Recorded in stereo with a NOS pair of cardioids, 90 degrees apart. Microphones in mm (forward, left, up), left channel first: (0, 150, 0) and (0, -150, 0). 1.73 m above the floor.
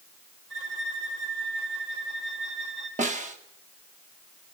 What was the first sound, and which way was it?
A violin, 50° right.